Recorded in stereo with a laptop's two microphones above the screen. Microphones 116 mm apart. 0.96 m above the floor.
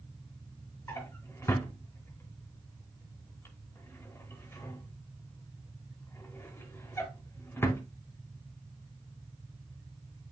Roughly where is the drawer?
Left.